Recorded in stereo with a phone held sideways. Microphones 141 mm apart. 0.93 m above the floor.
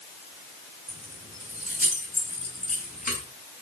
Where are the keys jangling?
90° left, 6.5 m; by 3.2 s 80° left, 6 m.